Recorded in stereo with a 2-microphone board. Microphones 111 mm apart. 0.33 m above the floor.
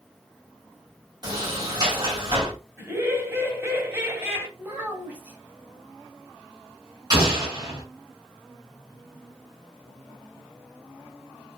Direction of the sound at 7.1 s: 40° right (ahead or behind).